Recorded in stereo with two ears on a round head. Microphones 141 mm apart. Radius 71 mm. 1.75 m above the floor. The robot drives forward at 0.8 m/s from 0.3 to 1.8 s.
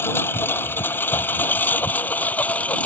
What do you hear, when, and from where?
0.0 s a lawn mower: 15° left (ahead or behind); by 2.9 s 10° left (ahead or behind)